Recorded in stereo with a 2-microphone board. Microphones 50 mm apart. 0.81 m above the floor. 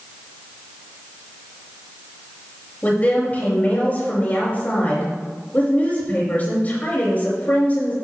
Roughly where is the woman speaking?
Left.